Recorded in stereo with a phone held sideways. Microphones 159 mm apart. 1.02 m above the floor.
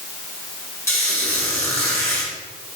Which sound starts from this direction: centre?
A squeak, at 0.9 s.